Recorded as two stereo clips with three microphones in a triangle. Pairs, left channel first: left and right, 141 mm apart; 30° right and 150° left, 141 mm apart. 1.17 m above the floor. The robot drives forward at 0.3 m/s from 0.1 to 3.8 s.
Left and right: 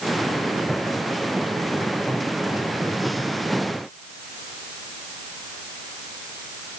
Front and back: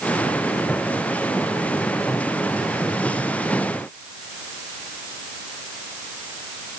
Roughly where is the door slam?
No door slam in this recording.